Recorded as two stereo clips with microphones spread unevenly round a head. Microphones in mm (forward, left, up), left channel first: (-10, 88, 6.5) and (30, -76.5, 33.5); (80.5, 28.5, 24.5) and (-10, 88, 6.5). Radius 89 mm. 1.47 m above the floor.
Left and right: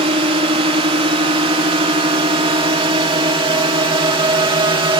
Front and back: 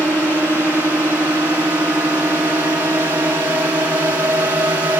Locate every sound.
0.0 s a drone: 135° right; by 5.0 s 140° right